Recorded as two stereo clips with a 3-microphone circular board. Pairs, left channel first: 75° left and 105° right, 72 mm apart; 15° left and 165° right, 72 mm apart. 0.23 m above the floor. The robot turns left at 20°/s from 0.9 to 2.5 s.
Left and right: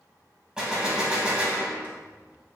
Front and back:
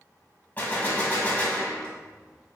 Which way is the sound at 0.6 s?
30° right.